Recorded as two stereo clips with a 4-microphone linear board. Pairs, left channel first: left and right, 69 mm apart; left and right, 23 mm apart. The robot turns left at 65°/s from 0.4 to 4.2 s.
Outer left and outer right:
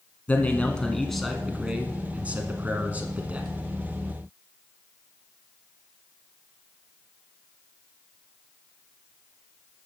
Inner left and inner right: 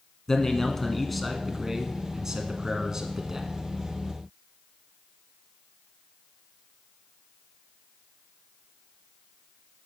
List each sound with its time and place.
0.3 s a man speaking: 20° left (ahead or behind), 1.1 m; by 3.5 s 15° right (ahead or behind), 1.1 m